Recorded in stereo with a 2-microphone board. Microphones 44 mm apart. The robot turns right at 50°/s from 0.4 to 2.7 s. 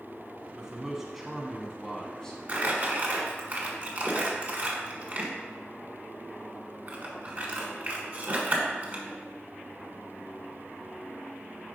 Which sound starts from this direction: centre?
A man speaking, at 0.6 s.